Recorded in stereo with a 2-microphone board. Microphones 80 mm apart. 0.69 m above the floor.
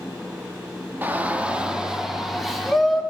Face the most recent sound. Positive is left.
turn(degrees=0)  # may be behind; listen again after turning